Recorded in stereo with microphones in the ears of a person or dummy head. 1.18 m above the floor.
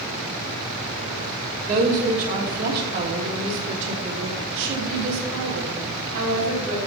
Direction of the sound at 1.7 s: 45° right (ahead or behind).